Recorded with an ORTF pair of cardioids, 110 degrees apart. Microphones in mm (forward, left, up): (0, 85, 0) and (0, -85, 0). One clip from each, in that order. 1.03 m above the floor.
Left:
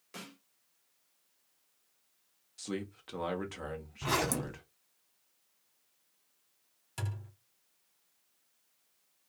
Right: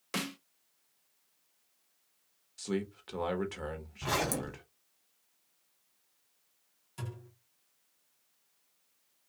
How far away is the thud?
About 1.4 m.